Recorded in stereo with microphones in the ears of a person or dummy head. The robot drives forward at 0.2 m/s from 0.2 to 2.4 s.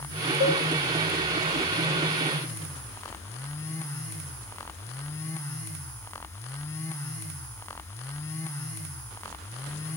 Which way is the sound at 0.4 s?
55° right (ahead or behind).